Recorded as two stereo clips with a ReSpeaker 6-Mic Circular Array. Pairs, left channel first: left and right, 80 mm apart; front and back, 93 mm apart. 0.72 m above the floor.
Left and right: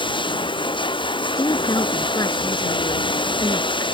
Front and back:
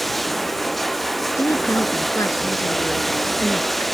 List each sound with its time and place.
0.0 s running water: 90° left
1.4 s a woman speaking: 55° left